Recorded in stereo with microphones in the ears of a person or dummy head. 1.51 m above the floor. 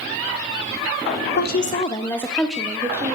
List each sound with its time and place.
1.4 s a woman speaking: 65° left (ahead or behind), 0.6 m; by 3.1 s 10° right (ahead or behind), 1.3 m